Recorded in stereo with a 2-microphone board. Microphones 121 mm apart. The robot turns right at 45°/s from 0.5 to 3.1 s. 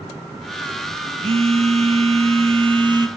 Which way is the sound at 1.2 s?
120° right.